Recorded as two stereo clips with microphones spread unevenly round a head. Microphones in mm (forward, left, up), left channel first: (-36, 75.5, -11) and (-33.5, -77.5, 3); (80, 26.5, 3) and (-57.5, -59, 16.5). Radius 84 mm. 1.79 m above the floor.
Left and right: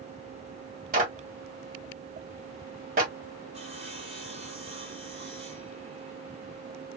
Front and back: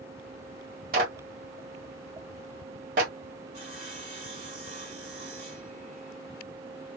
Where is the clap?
115° right, 1.2 m.